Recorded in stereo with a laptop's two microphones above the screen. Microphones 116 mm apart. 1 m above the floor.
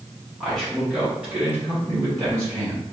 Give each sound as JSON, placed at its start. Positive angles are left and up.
{"t": 0.4, "sound": "a man speaking", "side_deg": 5, "distance_m": 1.6}